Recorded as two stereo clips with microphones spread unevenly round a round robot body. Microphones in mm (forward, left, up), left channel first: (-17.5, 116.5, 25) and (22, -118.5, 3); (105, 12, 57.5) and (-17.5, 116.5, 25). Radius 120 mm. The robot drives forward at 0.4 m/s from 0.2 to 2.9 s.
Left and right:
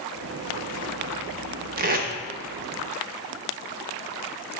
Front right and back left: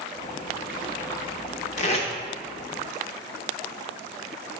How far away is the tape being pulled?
About 0.5 m.